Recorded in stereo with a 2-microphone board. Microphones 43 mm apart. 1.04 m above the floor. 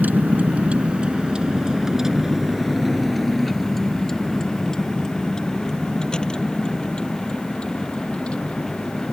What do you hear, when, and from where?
0.0 s a vehicle: 40° right (ahead or behind); by 9.1 s 30° left (ahead or behind)